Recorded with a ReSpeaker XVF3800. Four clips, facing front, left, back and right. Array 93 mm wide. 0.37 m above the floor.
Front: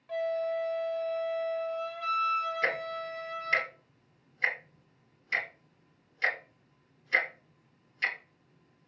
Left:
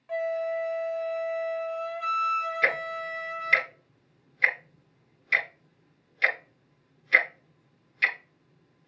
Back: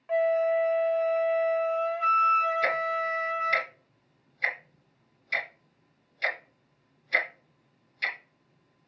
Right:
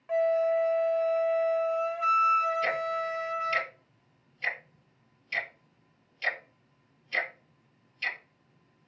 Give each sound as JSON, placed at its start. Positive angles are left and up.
{"t": 0.1, "sound": "a flute", "azimuth_deg": -150, "distance_m": 1.0}
{"t": 2.6, "sound": "ticking", "azimuth_deg": 75, "distance_m": 2.0}